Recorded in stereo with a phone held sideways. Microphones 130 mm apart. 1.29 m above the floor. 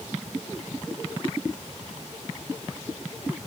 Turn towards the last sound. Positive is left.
No sound to turn to.